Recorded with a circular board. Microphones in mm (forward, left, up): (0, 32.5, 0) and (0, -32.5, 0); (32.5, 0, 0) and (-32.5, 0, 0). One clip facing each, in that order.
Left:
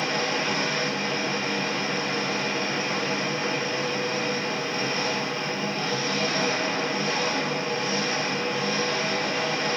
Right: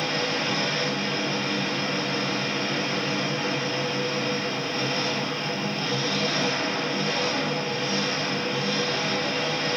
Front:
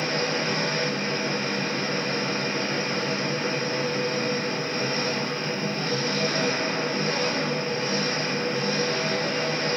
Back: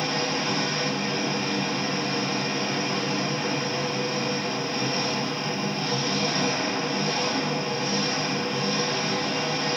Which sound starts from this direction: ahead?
An engine running, at 0.0 s.